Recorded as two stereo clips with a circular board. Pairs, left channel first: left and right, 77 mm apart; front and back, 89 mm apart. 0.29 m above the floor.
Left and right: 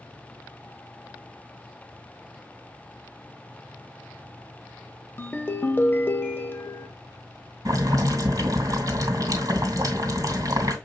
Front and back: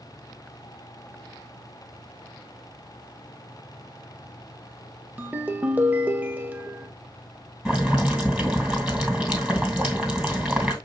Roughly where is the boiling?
Right.